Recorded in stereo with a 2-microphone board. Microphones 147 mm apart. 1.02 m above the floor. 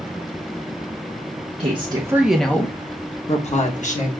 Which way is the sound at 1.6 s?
40° right (ahead or behind).